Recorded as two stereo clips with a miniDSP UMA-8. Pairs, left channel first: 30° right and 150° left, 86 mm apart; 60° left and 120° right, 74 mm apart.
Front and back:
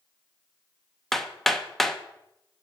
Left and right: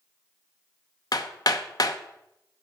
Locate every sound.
1.1 s hammering: 55° left, 0.7 m